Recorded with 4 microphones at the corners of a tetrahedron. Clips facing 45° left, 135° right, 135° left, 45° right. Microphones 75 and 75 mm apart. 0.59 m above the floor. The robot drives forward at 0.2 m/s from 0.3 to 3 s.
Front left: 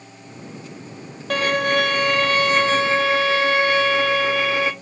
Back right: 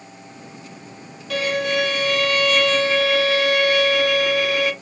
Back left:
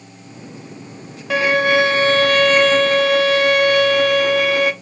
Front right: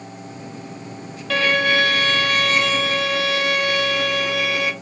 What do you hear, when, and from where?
1.3 s a violin: 65° left, 0.6 m; by 4.7 s 105° left, 0.6 m